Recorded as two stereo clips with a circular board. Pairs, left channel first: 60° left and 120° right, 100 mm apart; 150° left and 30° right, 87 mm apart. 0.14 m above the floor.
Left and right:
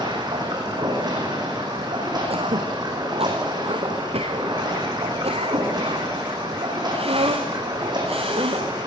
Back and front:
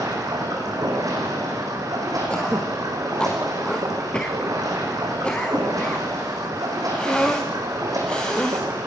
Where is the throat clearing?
130° right, 3 m.